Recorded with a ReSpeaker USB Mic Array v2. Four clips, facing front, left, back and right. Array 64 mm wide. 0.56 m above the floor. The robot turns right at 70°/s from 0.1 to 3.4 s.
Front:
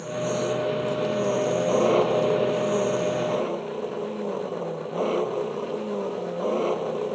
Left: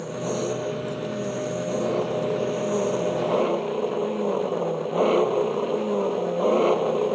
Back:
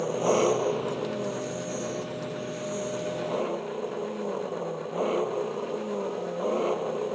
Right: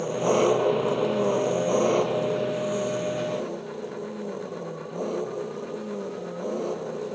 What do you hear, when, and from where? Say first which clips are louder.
0.0 s an engine running: right 6 dB, back 3 dB; 145° right; by 7.2 s 85° left